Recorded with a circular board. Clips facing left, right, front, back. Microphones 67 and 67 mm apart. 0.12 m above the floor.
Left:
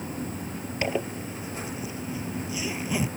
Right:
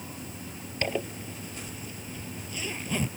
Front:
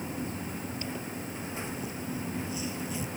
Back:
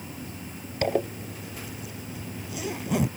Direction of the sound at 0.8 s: 170° left.